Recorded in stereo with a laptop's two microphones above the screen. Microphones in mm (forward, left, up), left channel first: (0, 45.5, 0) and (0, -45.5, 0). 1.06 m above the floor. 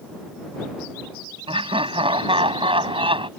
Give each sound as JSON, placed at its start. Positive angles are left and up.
{"t": 1.5, "sound": "laughter", "side_deg": -75}